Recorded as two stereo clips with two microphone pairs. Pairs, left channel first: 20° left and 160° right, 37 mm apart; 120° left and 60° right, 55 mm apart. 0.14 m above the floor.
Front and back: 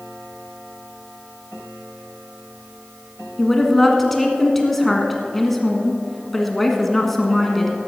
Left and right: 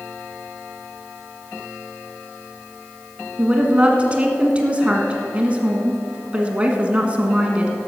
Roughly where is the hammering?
No hammering in this recording.